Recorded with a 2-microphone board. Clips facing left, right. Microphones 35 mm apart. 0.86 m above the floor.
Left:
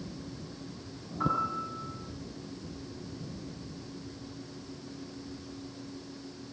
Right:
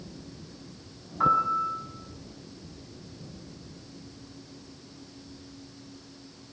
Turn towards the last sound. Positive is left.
turn(degrees=-25)  # may be behind; listen again after turning